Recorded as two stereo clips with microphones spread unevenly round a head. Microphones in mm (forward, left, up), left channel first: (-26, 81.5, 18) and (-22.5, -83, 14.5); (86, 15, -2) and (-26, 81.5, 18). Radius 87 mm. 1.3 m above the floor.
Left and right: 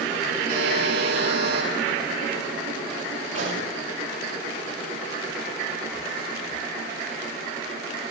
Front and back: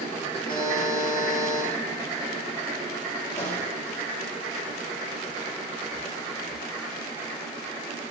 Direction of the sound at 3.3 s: 85° right.